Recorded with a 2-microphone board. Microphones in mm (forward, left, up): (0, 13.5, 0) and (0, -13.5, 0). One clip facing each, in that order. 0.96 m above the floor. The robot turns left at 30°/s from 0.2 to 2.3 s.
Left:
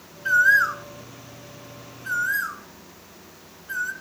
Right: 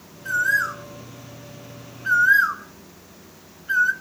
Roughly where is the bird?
Left.